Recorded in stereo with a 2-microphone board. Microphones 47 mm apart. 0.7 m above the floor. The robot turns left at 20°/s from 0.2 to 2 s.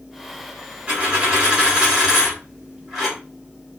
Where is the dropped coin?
30° right (ahead or behind), 1.5 m; by 3.2 s 10° right (ahead or behind), 1.5 m.